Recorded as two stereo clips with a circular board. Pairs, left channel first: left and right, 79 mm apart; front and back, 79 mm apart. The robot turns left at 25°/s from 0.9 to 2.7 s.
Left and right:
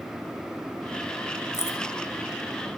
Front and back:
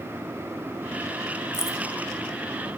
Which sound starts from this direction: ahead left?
Keys jangling, at 1.5 s.